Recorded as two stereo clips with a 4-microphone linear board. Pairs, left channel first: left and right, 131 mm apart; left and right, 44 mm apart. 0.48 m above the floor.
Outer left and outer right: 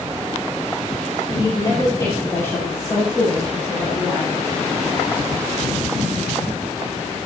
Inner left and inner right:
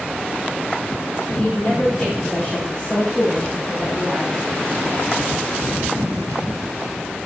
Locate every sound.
1.3 s a woman speaking: 30° left (ahead or behind), 5 m; by 4.4 s 15° left (ahead or behind), 8 m